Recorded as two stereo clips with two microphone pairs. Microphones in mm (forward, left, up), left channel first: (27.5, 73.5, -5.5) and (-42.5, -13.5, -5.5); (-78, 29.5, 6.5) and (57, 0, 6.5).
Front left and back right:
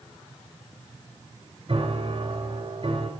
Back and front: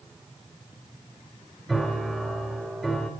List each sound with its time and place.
1.7 s a piano: 100° right, 2 m